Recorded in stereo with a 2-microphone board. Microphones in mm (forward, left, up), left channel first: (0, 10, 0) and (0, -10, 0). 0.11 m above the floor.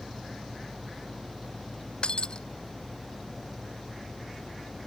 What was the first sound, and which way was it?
Breaking glass, 50° left (ahead or behind).